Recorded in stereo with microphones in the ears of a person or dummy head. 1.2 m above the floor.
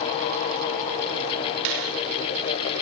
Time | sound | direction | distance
1.6 | a finger snap | 85° right | 3 m